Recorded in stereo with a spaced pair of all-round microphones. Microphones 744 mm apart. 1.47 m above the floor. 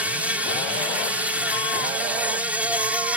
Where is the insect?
Centre (ahead or behind).